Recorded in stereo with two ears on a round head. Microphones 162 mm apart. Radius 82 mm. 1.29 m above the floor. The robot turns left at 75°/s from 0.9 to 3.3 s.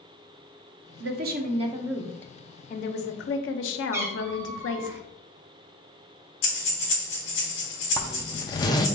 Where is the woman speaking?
100° right, 0.7 m; by 4.9 s 90° left, 0.7 m.